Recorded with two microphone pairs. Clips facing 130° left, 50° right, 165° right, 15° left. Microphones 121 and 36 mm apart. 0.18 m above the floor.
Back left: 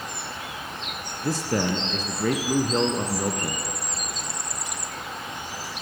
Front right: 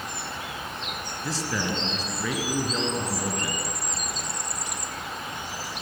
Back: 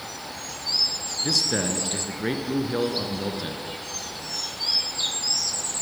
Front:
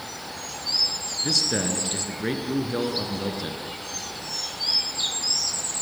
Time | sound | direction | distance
1.2 | a man speaking | 110° left | 2 m